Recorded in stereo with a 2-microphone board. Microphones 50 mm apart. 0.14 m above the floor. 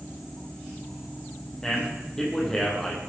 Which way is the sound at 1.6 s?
10° left (ahead or behind).